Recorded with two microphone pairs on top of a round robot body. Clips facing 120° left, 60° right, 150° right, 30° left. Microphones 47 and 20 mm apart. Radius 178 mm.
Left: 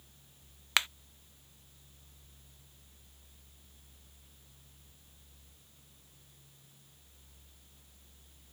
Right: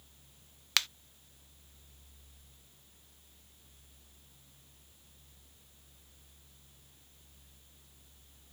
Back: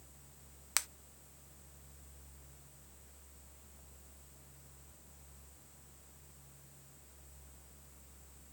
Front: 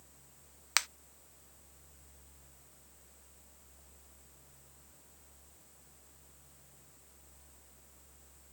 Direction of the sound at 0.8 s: 85° left.